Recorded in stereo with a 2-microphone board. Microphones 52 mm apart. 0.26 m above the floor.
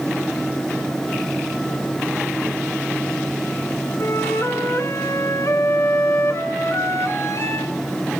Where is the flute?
65° left (ahead or behind), 1.2 m.